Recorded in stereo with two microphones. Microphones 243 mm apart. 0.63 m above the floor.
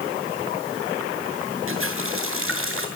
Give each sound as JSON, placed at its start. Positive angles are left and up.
{"t": 1.7, "sound": "a running tap", "side_deg": -60, "distance_m": 6.5}